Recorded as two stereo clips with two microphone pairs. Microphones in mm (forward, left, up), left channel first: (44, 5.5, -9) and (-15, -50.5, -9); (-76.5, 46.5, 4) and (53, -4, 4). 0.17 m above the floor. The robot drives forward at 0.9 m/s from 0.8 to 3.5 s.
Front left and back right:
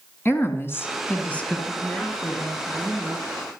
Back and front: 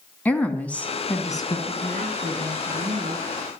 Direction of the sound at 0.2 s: 85° left.